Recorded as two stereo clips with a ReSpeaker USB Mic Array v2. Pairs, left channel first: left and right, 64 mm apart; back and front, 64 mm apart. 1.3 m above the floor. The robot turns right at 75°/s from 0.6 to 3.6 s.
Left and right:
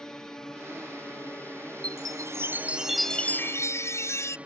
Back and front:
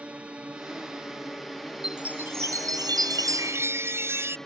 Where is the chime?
85° right; by 4.4 s 50° left.